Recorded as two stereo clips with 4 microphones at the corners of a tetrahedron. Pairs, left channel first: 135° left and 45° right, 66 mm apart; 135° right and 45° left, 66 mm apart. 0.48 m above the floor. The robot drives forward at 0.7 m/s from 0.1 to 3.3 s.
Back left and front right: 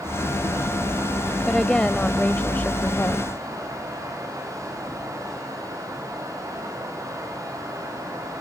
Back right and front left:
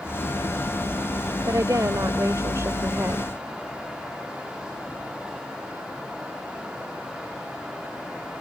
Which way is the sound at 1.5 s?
50° left.